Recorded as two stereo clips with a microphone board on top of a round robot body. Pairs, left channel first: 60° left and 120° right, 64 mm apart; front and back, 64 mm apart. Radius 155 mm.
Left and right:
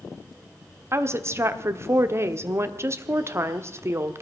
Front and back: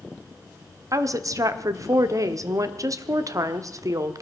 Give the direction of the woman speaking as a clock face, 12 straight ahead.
5 o'clock.